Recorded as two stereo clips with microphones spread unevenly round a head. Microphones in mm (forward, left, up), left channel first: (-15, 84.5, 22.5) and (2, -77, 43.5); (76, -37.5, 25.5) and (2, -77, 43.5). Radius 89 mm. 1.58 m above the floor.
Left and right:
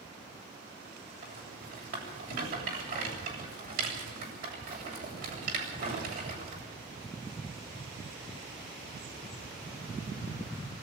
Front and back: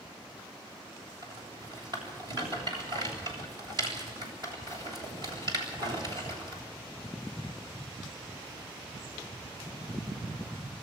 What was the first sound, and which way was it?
A rattle, 120° right.